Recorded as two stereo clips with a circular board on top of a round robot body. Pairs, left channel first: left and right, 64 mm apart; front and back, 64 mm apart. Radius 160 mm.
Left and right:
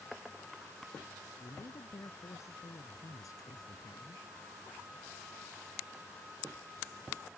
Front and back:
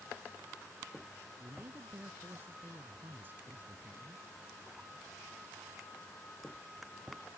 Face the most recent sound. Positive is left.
turn(degrees=115)